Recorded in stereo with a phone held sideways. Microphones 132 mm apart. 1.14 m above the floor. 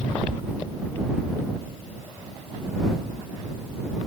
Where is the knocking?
I don't hear knocking.